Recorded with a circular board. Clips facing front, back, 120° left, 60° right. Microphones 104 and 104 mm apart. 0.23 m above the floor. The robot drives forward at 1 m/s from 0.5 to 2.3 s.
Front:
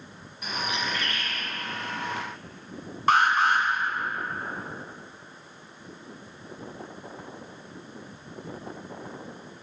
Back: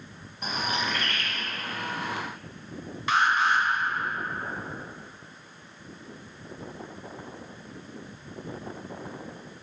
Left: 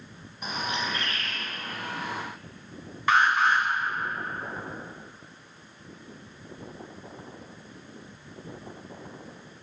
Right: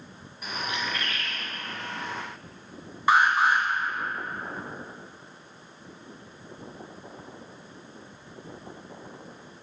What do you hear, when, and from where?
0.4 s a bird: 160° left, 0.8 m; by 1.4 s 170° left, 1.5 m
3.1 s an alarm: 15° left, 1.5 m